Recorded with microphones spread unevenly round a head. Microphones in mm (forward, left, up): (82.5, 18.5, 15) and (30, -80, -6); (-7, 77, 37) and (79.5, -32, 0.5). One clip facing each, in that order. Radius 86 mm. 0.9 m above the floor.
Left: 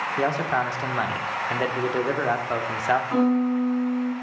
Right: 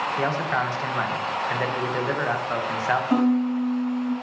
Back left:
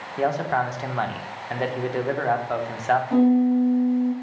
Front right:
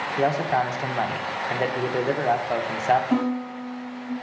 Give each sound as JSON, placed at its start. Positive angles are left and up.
{"t": 0.2, "sound": "a man speaking", "azimuth_deg": -15, "distance_m": 0.8}
{"t": 3.1, "sound": "a piano", "azimuth_deg": -130, "distance_m": 2.5}